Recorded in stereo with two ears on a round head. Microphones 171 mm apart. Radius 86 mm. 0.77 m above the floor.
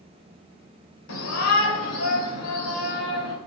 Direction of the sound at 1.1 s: 80° left.